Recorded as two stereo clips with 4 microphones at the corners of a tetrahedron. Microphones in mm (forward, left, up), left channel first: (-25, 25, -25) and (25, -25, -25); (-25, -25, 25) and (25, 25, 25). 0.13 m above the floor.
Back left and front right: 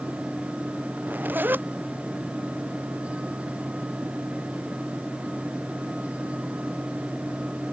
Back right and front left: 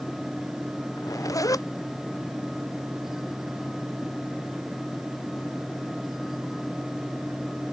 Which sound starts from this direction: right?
A zipper, at 1.0 s.